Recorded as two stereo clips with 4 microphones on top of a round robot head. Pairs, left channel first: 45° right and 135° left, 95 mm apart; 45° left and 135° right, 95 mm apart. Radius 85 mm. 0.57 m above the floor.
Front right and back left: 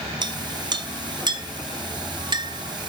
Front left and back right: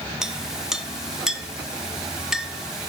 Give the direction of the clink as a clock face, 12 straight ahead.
7 o'clock.